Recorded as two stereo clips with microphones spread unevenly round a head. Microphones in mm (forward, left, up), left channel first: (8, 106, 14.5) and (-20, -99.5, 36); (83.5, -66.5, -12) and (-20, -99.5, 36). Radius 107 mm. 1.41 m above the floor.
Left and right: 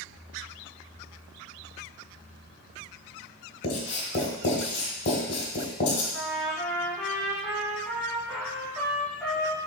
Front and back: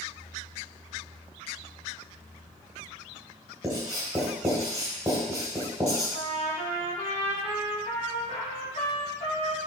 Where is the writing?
135° left, 2 m.